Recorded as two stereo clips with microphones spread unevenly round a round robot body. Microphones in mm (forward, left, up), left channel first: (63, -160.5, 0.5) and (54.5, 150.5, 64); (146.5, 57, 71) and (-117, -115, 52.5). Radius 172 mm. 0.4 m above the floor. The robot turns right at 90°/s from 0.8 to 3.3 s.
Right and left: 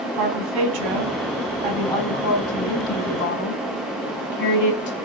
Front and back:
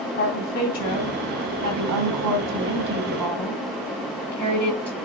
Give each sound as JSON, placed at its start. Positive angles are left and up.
{"t": 0.2, "sound": "a woman speaking", "azimuth_deg": 85, "distance_m": 2.5}